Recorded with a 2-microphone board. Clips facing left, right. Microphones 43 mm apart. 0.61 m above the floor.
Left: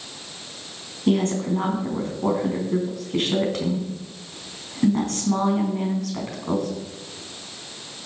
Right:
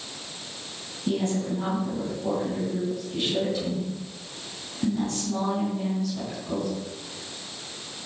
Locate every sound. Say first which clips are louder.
1.1 s a woman speaking: left 5 dB; 65° left (ahead or behind), 4.5 m